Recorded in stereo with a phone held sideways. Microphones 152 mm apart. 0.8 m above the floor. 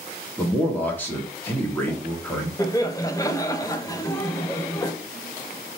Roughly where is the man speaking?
Centre.